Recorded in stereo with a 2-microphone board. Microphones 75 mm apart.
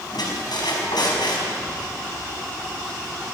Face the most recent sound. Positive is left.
turn(degrees=85)